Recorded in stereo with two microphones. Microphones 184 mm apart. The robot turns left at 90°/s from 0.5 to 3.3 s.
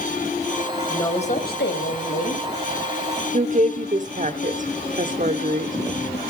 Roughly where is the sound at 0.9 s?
Behind.